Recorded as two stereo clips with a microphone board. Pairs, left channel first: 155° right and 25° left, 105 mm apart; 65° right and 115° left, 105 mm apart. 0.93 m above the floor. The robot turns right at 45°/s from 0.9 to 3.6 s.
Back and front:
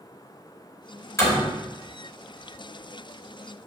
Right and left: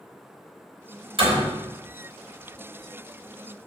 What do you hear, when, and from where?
1.2 s a door slam: 140° left, 5 m; by 1.6 s 155° left, 5 m